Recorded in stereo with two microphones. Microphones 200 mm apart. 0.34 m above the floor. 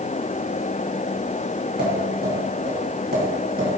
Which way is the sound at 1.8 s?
60° right (ahead or behind).